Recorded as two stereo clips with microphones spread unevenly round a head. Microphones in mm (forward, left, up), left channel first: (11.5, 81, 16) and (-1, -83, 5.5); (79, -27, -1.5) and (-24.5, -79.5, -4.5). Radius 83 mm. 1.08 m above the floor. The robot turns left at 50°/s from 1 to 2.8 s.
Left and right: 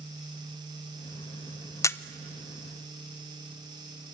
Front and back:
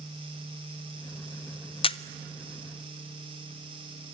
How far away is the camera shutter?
About 0.6 m.